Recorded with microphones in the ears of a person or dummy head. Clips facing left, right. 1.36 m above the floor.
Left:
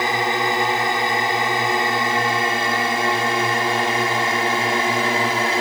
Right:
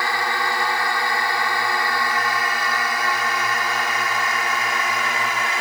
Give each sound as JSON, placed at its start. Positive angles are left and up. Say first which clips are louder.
{"t": 0.0, "sound": "a drone", "louder": "left 4 dB", "side_deg": 15}